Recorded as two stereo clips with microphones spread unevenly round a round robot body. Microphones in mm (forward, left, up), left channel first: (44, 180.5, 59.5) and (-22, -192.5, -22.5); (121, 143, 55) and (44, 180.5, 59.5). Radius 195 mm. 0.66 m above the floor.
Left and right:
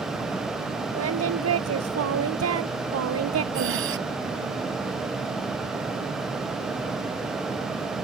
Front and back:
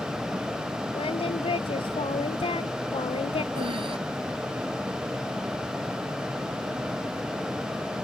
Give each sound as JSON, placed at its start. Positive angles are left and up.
{"t": 0.9, "sound": "singing", "azimuth_deg": -45}
{"t": 3.5, "sound": "breathing", "azimuth_deg": -160}